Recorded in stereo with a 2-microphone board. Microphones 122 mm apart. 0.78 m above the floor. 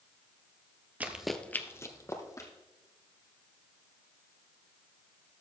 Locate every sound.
1.0 s running footsteps: 15° right (ahead or behind), 0.9 m; by 2.5 s 30° left (ahead or behind), 1.9 m